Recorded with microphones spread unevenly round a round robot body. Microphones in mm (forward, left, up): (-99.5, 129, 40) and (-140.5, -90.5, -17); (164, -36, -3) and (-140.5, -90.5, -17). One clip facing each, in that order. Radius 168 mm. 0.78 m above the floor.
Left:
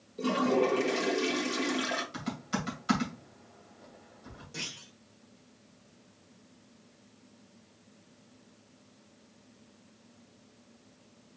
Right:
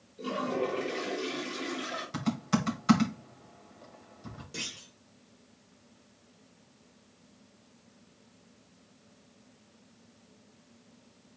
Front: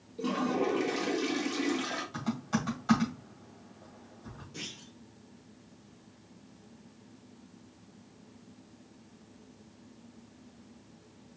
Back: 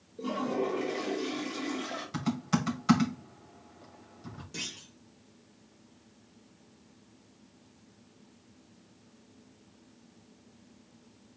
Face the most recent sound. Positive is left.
turn(degrees=-150)